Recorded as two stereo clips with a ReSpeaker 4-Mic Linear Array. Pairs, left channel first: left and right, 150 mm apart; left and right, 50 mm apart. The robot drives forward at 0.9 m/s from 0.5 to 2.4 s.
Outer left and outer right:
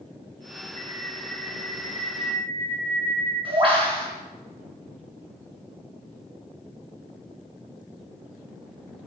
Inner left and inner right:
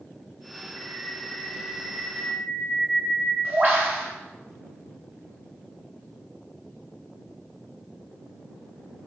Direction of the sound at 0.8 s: 45° right (ahead or behind).